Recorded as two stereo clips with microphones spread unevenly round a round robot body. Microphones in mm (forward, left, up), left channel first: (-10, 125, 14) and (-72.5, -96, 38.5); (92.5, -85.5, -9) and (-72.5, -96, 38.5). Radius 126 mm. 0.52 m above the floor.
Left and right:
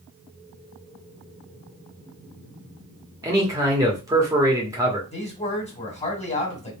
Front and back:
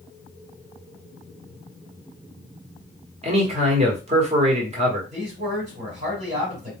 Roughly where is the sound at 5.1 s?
Behind left.